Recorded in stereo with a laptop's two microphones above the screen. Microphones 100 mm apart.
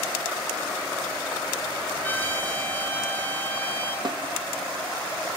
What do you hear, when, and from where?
2.0 s a trumpet: 20° left (ahead or behind), 3.5 m
4.0 s a snare drum: 50° right (ahead or behind), 1.0 m